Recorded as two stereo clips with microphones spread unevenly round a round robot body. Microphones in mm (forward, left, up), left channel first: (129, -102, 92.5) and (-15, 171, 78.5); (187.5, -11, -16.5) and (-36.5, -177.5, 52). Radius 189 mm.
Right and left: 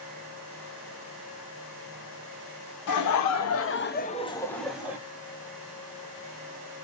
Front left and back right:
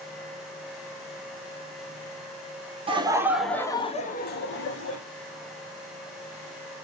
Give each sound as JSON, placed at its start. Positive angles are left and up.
{"t": 2.9, "sound": "laughter", "azimuth_deg": -65, "distance_m": 0.8}